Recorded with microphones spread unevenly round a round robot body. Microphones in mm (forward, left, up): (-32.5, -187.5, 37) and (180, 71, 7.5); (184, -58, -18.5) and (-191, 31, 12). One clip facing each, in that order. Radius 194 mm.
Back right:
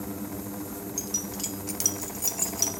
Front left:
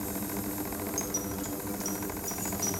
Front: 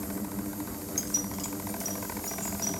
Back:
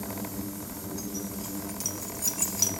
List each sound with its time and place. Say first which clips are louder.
1.0 s keys jangling: front left 1 dB, back 1 dB; 50° right, 0.6 m; by 2.7 s 145° right, 0.9 m